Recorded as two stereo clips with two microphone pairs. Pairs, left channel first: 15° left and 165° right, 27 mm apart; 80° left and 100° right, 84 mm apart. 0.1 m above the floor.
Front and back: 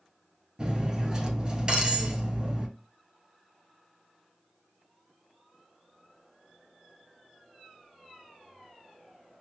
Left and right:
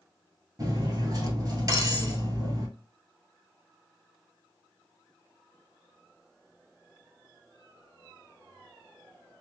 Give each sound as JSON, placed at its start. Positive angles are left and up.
{"t": 0.6, "sound": "cutlery clinking", "azimuth_deg": -120, "distance_m": 1.2}